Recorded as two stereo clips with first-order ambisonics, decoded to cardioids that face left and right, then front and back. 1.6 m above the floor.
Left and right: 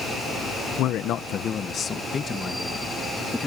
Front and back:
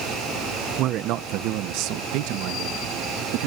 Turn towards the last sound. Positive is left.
turn(degrees=170)